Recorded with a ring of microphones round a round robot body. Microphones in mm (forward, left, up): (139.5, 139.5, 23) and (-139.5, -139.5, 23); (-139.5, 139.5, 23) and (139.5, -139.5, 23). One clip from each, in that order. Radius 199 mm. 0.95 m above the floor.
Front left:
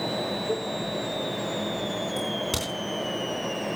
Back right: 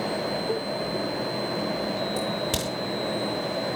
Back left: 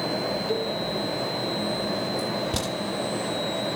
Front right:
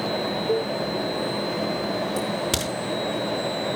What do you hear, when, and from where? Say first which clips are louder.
0.5 s a cowbell: back right 1 dB, front right 6 dB; 50° right, 3 m
2.2 s a crack: back right 1 dB, front right 2 dB; 50° right, 10 m